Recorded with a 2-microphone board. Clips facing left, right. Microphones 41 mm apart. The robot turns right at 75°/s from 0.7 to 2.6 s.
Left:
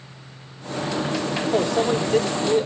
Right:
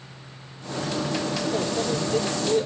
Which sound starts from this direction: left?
A microwave, at 1.5 s.